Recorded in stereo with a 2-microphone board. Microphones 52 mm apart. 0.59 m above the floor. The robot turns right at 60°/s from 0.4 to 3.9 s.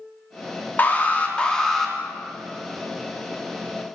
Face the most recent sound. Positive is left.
turn(degrees=-60)